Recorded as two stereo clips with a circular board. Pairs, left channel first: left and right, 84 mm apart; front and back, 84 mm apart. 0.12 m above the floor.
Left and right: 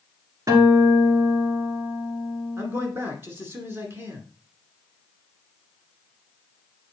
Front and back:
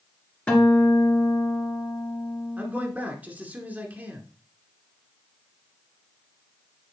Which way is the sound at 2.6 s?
125° right.